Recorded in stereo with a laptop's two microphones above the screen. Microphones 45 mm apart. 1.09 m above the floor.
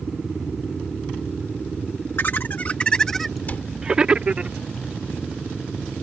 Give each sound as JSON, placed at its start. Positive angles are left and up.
{"t": 2.2, "sound": "laughter", "side_deg": 60}
{"t": 3.5, "sound": "a cupboard door", "side_deg": 35}